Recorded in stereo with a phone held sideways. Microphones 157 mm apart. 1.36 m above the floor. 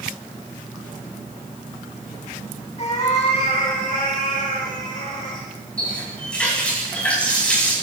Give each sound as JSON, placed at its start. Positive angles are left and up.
{"t": 2.8, "sound": "a cat meowing", "side_deg": 45, "distance_m": 3.5}
{"t": 5.8, "sound": "a running tap", "side_deg": 10, "distance_m": 6.5}